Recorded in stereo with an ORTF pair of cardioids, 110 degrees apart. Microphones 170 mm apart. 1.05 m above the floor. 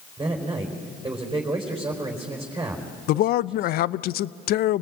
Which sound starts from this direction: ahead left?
A man speaking, at 3.1 s.